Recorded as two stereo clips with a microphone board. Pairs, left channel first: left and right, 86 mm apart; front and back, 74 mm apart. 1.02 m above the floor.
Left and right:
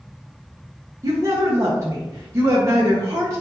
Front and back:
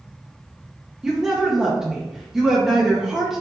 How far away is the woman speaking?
About 0.9 m.